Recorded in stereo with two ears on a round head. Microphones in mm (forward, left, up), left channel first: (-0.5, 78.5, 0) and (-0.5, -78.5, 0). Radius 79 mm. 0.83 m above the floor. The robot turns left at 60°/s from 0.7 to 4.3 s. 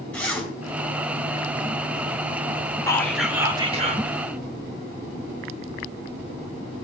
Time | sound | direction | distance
0.1 | a zipper | 10° left (ahead or behind) | 3.5 m
2.9 | whispering | 20° left | 2.5 m